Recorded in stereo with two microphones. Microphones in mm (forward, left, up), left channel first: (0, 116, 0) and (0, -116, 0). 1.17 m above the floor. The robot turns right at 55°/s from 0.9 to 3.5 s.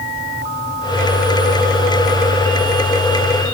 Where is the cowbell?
No cowbell in this recording.